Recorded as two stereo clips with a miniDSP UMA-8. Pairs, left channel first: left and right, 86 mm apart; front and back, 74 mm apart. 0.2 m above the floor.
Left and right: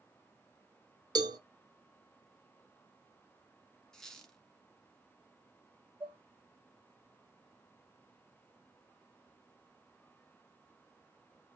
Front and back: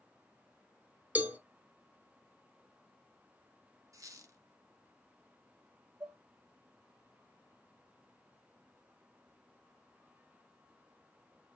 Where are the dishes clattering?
160° right, 2 m.